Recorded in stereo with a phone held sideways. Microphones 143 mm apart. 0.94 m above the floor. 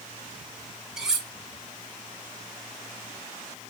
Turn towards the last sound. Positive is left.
turn(degrees=-5)  # may be behind; listen again after turning